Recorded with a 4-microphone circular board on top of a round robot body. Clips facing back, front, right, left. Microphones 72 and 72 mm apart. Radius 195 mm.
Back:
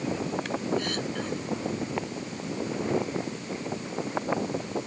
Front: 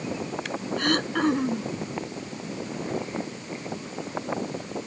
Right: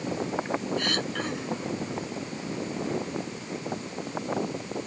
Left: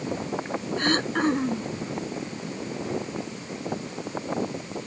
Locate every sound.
0.8 s throat clearing: 35° left